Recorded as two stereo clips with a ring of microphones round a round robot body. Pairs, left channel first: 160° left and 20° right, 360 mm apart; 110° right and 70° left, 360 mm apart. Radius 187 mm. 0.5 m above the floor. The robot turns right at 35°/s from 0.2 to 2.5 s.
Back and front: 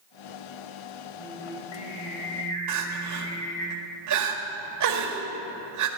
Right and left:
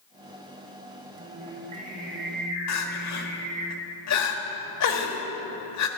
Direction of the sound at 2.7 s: 65° right.